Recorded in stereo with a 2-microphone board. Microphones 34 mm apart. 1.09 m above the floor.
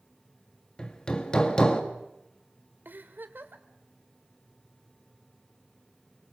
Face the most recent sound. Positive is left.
turn(degrees=-75)  # may be behind; listen again after turning